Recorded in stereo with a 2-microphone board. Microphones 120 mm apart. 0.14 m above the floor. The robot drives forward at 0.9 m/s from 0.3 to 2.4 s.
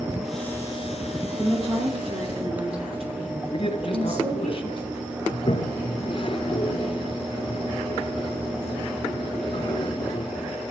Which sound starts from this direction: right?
A woman speaking, at 1.4 s.